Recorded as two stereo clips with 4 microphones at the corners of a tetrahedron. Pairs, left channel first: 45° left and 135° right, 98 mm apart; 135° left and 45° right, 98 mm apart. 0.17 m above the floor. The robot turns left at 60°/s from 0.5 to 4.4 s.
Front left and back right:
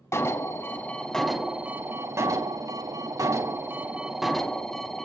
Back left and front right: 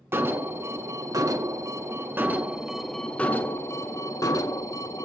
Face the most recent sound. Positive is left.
turn(degrees=130)